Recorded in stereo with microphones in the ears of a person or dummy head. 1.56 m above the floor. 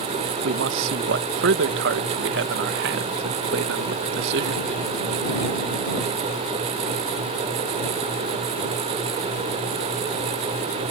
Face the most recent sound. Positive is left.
turn(degrees=-60)  # may be behind; listen again after turning